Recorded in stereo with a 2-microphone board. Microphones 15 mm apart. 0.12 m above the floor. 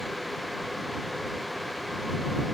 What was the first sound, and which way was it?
Only background noise.